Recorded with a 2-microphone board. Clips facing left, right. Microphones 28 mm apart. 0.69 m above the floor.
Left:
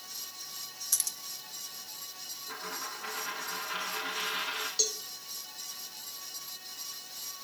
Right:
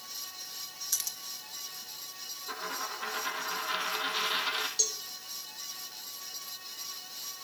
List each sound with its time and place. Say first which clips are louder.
0.9 s keys jangling: even; 5° right (ahead or behind), 1.2 m
2.5 s a dropped coin: right 3 dB; 85° right, 5 m
4.8 s a cowbell: left 1 dB; 15° left (ahead or behind), 2 m